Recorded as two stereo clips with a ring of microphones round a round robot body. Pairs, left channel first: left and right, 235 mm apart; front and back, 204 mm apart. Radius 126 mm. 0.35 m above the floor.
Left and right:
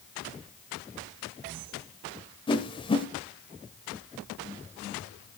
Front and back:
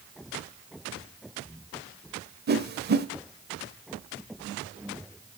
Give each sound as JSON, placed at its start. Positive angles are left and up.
{"t": 2.5, "sound": "a whoosh", "azimuth_deg": 155, "distance_m": 1.0}